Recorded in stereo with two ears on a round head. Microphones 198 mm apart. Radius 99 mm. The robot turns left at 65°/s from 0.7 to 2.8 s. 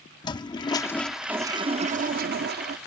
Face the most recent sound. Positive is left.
turn(degrees=-110)